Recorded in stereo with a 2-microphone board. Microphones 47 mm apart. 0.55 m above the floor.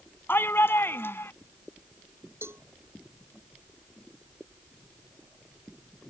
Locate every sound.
0.3 s a shout: 50° left (ahead or behind); by 1.3 s 60° left (ahead or behind)
2.4 s a cowbell: 60° right (ahead or behind)